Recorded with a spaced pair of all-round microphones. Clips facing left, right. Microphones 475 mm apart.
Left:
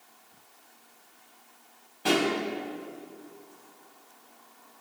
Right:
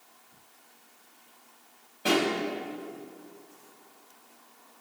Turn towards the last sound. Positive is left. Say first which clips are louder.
# even
turn(degrees=10)  # may be behind; listen again after turning